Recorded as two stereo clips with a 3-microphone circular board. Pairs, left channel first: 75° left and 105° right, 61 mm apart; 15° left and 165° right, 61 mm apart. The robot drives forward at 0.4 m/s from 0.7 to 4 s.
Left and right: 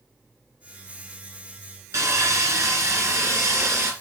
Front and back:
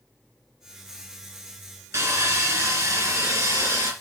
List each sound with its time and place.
1.9 s sawing: 130° right, 3 m; by 3.9 s 140° right, 3.5 m